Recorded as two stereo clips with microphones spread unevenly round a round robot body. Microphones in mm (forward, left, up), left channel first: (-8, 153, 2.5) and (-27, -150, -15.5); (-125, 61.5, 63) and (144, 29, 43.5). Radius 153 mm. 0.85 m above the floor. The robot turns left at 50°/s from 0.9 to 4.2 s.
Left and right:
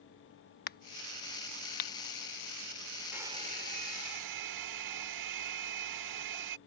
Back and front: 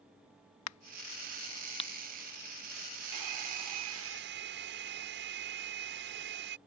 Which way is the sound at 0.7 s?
145° left.